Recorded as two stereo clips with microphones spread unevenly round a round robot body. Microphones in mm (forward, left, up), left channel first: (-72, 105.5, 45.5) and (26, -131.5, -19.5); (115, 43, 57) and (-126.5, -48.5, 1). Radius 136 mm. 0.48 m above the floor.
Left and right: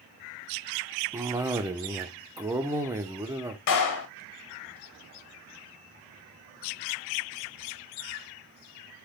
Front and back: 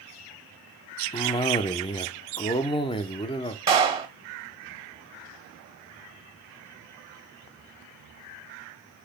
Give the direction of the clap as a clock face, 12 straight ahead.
8 o'clock.